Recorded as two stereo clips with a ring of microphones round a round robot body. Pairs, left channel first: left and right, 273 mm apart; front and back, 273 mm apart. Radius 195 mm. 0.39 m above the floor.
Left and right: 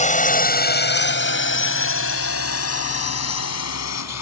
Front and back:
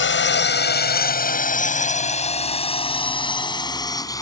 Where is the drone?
35° left; by 4.2 s 75° left.